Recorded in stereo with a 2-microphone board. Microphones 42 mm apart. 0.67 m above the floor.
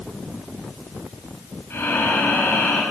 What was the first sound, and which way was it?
Breathing, 60° left (ahead or behind).